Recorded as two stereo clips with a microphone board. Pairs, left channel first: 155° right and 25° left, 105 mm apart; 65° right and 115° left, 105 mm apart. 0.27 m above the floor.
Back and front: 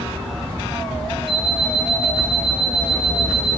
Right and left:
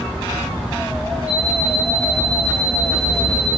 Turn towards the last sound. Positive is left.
turn(degrees=-25)